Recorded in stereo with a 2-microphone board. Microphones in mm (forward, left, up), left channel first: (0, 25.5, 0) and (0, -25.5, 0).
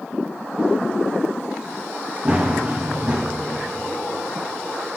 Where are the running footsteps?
20° right (ahead or behind), 2 m.